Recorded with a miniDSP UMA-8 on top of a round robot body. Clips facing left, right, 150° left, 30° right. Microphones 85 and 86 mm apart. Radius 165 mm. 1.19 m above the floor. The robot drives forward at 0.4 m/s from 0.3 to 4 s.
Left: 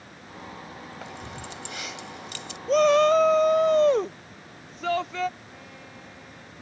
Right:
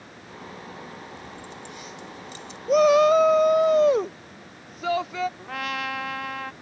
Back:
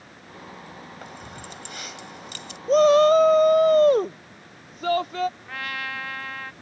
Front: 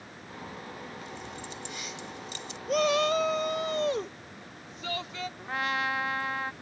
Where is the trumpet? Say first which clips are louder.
Right 15 dB, front 3 dB; 100° right.